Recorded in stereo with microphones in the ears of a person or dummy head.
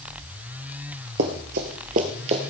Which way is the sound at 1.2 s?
45° right (ahead or behind).